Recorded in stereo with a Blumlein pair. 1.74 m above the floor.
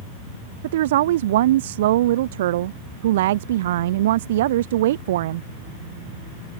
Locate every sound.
0.6 s a woman speaking: 55° right